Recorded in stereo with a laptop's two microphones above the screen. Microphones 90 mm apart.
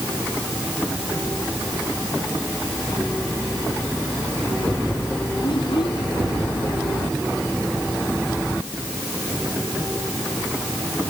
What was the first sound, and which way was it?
A child speaking, 65° left (ahead or behind).